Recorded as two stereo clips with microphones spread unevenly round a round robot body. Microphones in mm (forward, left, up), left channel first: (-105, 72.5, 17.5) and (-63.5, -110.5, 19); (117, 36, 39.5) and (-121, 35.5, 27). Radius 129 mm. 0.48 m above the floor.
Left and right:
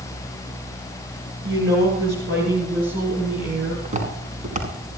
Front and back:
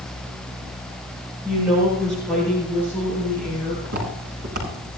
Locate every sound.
1.4 s a woman speaking: 90° right, 9.5 m; by 3.8 s 75° right, 8 m
3.9 s footsteps: 125° right, 9 m